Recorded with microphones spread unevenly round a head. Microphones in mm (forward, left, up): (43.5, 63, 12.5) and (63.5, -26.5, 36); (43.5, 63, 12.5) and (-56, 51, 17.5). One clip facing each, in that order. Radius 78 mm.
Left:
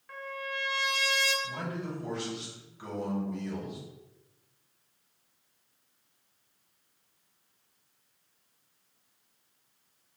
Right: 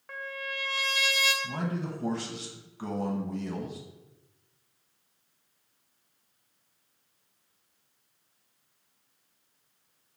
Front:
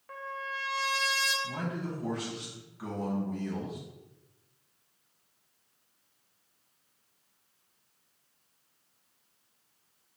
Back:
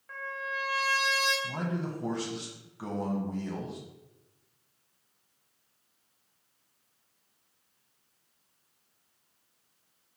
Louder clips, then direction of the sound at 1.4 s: Right 3 dB, back 2 dB; 125° right.